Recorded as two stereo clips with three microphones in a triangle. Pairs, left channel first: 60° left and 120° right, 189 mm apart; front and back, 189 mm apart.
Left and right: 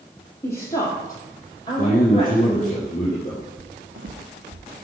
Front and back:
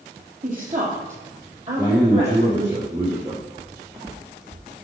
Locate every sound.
0.4 s a woman speaking: 140° left, 4.5 m; by 2.8 s 120° left, 5.5 m
1.8 s a man speaking: 110° left, 3.5 m
3.6 s footsteps: 90° right, 0.9 m; by 4.6 s 140° right, 0.8 m